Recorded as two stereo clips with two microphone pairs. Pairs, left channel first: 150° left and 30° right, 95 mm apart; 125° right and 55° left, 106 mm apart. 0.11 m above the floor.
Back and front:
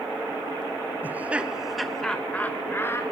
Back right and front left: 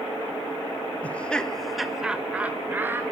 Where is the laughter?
65° right, 1.1 m; by 3.0 s 105° left, 1.2 m.